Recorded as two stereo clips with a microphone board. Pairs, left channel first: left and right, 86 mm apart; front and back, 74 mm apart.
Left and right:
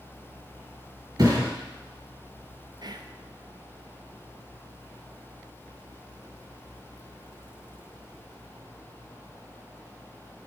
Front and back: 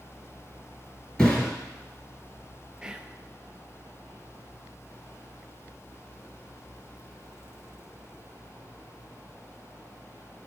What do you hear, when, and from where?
1.2 s a thud: 70° right, 2.5 m
2.8 s whispering: 100° right, 0.6 m